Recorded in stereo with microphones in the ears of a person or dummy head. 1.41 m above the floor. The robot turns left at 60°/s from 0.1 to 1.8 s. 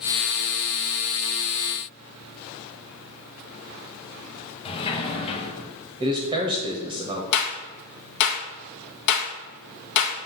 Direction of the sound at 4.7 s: 30° left (ahead or behind).